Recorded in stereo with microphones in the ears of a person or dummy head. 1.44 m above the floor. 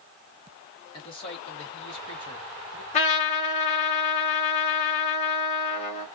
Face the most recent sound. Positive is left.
turn(degrees=35)  # may be behind; listen again after turning